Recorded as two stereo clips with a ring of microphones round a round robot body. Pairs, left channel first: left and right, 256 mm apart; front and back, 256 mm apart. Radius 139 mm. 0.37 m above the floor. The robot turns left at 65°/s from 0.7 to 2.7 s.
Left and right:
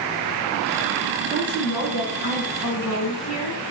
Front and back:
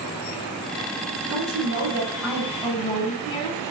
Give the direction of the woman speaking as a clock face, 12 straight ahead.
7 o'clock.